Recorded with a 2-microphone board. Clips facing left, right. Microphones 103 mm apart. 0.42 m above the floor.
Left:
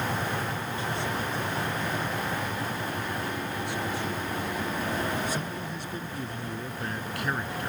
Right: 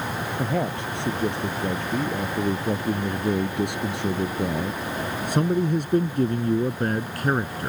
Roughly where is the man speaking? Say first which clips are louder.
Right 6 dB; right.